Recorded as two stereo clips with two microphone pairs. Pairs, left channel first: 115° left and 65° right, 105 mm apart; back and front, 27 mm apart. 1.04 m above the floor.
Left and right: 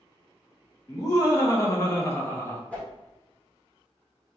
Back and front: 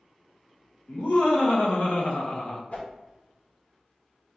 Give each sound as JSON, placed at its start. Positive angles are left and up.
{"t": 0.9, "sound": "laughter", "azimuth_deg": 175, "distance_m": 1.6}
{"t": 2.7, "sound": "a whoosh", "azimuth_deg": -165, "distance_m": 1.2}